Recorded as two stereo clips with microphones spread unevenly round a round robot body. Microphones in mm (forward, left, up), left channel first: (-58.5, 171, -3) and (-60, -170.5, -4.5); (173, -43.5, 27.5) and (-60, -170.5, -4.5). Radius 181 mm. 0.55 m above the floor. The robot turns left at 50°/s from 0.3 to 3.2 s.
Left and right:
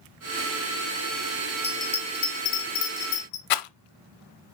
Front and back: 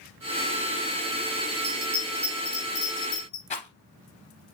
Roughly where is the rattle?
Left.